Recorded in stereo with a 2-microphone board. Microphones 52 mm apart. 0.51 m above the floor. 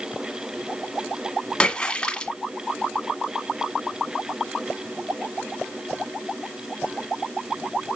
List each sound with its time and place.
1.6 s a splash: 20° left (ahead or behind), 1.3 m